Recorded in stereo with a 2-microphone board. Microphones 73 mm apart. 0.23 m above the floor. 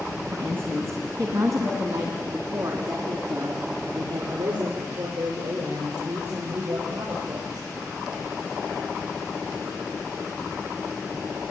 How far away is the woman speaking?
About 2.5 m.